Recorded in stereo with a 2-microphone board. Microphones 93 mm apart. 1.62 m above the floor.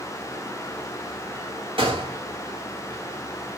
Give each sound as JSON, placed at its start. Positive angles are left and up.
{"t": 1.8, "sound": "a gunshot", "side_deg": -75, "distance_m": 1.1}